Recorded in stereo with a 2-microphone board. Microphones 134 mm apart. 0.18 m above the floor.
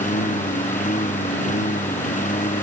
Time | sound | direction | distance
0.0 | a lawn mower | 80° left | ?